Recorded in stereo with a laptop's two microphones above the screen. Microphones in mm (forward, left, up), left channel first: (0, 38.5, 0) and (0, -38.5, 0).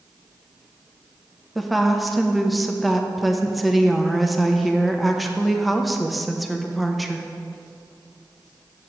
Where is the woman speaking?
Centre (ahead or behind), 0.9 m.